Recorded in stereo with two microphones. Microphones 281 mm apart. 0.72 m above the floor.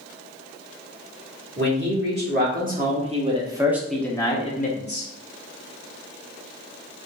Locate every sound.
1.6 s a man speaking: 40° right (ahead or behind), 1.7 m; by 5.1 s 45° left (ahead or behind), 0.8 m